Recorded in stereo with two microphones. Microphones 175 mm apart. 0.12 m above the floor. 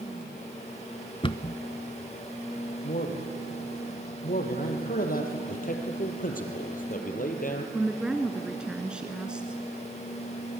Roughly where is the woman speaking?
Centre.